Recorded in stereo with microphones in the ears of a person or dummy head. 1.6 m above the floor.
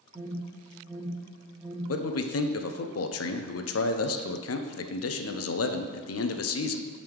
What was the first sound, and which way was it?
An alarm, 10° right (ahead or behind).